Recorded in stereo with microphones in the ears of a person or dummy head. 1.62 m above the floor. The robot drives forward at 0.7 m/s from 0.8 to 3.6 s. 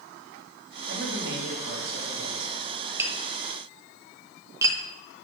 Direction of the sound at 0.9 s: 60° right (ahead or behind).